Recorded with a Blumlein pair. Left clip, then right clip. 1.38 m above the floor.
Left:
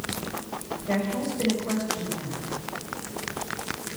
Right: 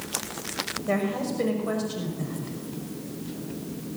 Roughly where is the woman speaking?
Ahead.